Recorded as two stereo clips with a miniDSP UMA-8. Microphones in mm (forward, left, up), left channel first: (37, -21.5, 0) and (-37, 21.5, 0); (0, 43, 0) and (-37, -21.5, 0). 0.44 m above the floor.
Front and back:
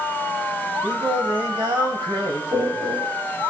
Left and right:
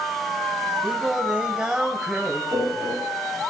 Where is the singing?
165° left, 2.5 m.